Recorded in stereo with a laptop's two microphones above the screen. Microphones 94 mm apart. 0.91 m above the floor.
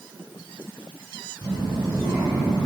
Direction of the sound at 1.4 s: 45° right (ahead or behind).